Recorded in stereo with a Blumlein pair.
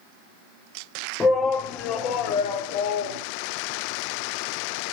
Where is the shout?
20° left, 1.3 m; by 3.2 s 55° left, 2 m.